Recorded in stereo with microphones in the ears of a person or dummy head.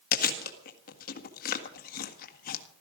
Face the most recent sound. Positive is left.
turn(degrees=55)  # may be behind; listen again after turning